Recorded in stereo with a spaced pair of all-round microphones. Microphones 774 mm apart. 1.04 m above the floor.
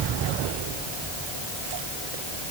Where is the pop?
I don't hear a pop.